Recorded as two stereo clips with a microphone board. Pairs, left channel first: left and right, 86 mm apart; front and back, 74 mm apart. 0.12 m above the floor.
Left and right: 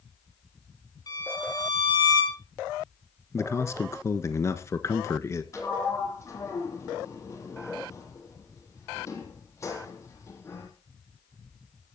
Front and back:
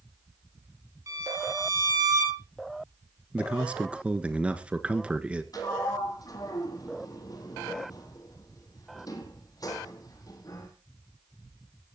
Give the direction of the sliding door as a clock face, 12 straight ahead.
11 o'clock.